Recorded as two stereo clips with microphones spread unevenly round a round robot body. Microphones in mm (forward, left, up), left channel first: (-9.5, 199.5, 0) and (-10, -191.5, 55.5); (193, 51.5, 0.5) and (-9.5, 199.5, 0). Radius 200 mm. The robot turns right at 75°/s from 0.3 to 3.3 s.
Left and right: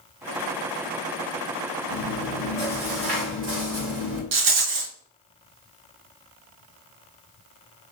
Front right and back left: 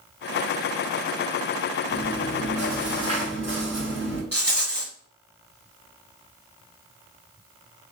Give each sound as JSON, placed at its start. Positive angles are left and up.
{"t": 1.9, "sound": "chewing", "azimuth_deg": 125, "distance_m": 2.5}
{"t": 4.3, "sound": "a rattle", "azimuth_deg": -130, "distance_m": 1.3}